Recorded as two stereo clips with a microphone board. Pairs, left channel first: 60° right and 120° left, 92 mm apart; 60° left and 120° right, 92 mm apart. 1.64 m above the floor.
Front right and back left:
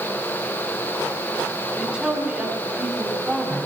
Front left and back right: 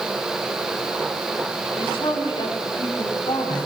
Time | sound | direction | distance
1.8 | a woman speaking | 40° left | 6 m